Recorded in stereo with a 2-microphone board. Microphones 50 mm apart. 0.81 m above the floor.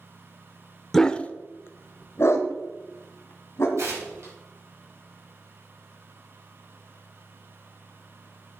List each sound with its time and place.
0.9 s a dog barking: 5° left (ahead or behind), 0.5 m; by 3.7 s 60° left (ahead or behind), 1.9 m
3.8 s tearing paper: 80° right, 5 m